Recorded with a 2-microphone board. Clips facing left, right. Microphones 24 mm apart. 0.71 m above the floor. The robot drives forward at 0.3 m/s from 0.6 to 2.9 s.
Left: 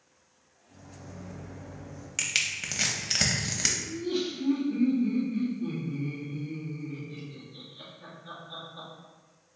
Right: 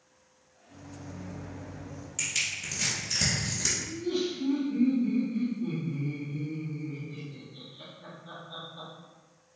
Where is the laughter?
30° left (ahead or behind), 1.7 m.